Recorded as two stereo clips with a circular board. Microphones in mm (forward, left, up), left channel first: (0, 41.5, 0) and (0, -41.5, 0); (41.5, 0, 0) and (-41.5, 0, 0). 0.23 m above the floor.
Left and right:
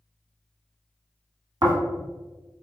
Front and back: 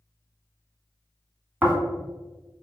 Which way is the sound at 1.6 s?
110° right.